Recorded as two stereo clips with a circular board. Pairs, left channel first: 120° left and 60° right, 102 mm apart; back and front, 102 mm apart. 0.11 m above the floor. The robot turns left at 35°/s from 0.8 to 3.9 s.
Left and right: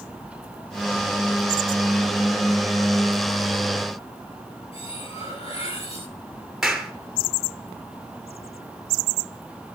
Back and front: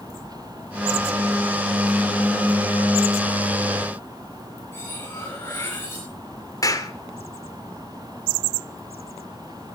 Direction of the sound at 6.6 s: 145° right.